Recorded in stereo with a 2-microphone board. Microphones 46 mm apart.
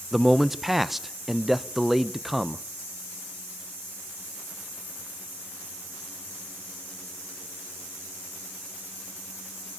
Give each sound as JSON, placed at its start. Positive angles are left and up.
{"t": 0.1, "sound": "a man speaking", "side_deg": -5, "distance_m": 0.6}